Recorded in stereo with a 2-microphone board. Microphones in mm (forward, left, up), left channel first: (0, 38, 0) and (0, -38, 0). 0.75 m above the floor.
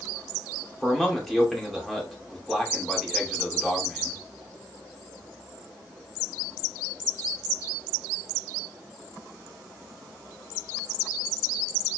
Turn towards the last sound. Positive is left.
turn(degrees=5)  # may be behind; listen again after turning